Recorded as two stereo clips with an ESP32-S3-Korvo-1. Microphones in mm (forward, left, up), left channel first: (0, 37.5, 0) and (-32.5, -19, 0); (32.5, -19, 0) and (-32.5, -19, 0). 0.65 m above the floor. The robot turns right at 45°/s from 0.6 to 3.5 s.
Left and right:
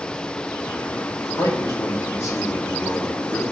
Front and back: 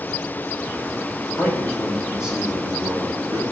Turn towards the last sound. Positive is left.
turn(degrees=160)